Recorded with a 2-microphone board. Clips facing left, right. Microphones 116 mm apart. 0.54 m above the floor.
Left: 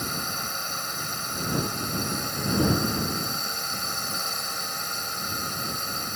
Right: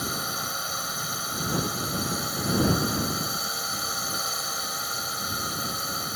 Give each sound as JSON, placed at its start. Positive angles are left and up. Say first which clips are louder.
{"t": 0.0, "sound": "a drone", "louder": "right 1 dB", "side_deg": -5}